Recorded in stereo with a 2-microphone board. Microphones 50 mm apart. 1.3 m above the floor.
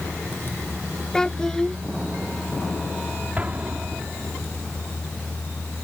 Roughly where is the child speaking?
Centre.